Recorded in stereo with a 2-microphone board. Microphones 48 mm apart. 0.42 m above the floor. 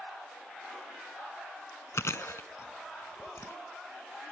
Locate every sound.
1.9 s chewing: 75° left (ahead or behind)